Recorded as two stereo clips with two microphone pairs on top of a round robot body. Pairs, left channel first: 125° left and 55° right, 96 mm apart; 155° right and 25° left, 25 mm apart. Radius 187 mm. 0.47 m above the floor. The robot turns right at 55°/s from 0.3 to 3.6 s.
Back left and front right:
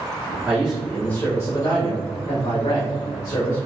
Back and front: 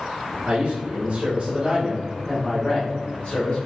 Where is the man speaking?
15° left, 2 m; by 3.7 s 170° right, 2 m.